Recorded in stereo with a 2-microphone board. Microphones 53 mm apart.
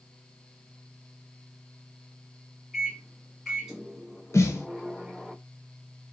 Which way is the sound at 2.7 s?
5° right (ahead or behind).